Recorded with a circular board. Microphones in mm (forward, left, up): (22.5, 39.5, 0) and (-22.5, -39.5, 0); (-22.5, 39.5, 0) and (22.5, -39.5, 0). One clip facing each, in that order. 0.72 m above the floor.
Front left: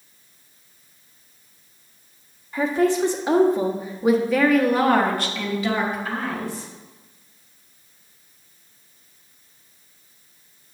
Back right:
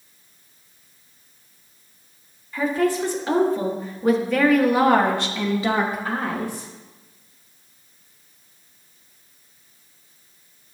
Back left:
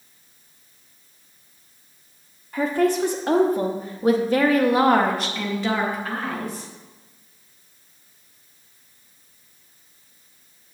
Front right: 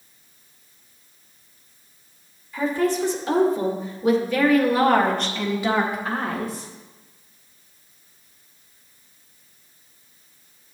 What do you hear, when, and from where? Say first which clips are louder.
2.5 s a woman speaking: front left 1 dB, back left 2 dB; 120° left, 1.6 m; by 6.7 s 100° right, 1.2 m